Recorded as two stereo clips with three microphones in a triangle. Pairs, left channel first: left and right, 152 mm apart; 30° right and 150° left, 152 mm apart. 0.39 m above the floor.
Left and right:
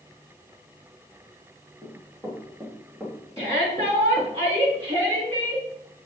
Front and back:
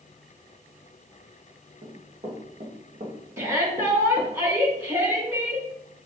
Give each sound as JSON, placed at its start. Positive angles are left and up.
{"t": 1.8, "sound": "running footsteps", "azimuth_deg": -155, "distance_m": 4.0}
{"t": 3.4, "sound": "a shout", "azimuth_deg": -140, "distance_m": 4.5}